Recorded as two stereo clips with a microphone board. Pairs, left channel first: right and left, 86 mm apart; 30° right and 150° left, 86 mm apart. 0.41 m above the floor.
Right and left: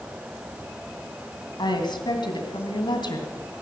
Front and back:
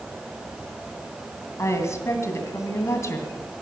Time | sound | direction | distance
1.6 | a woman speaking | 80° right | 2.5 m